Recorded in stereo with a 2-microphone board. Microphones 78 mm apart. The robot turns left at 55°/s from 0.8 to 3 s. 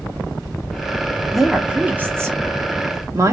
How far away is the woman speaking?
About 1.2 m.